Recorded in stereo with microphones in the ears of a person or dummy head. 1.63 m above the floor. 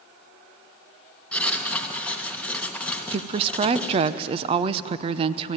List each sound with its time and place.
1.3 s writing: 10° left (ahead or behind), 2 m
3.1 s a woman speaking: 30° right (ahead or behind), 0.7 m